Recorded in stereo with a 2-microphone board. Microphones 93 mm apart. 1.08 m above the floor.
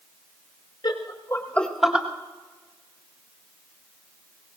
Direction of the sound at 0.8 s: 50° left (ahead or behind).